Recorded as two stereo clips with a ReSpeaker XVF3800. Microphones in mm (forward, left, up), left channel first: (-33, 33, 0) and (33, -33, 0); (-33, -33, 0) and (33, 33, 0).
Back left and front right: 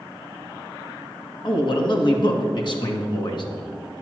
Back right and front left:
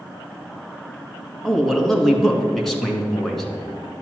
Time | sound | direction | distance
1.4 | a man speaking | 140° left | 1.8 m